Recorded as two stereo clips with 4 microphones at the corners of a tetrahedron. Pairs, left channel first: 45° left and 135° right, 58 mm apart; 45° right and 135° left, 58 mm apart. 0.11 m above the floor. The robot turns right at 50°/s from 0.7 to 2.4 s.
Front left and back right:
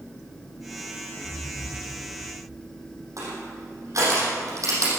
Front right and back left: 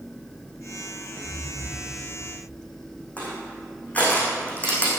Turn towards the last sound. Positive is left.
turn(degrees=-110)